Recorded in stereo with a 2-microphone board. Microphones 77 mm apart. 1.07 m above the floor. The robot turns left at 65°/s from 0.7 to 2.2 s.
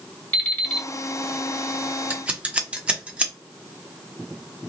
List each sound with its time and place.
0.3 s an alarm clock: 20° left (ahead or behind), 1.7 m; by 0.9 s 10° left (ahead or behind), 1.7 m
2.1 s scissors: 20° right (ahead or behind), 0.6 m